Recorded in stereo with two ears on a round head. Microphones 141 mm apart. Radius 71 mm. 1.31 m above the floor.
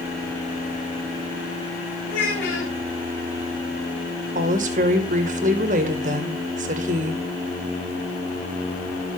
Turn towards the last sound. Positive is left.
turn(degrees=-50)  # may be behind; listen again after turning